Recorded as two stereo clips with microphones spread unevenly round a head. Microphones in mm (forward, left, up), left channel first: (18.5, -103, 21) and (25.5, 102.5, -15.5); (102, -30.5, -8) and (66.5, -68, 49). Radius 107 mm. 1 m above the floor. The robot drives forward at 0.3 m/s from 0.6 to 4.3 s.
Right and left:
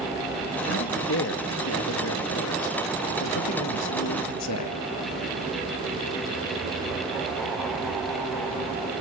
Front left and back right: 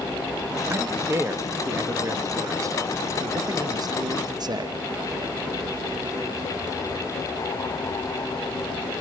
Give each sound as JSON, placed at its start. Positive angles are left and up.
{"t": 0.7, "sound": "a man speaking", "azimuth_deg": -55, "distance_m": 1.7}